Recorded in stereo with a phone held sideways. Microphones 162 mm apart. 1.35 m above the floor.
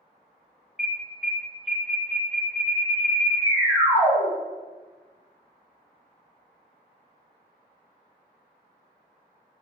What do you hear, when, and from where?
0.8 s an alarm: 5° right (ahead or behind), 1.2 m